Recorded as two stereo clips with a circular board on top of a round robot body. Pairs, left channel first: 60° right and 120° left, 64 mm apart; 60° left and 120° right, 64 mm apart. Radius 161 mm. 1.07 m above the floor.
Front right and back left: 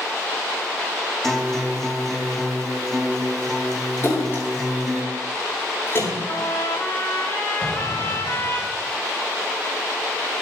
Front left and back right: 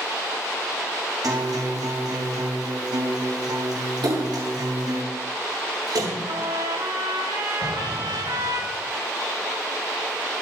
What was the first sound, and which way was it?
A guitar, 145° right.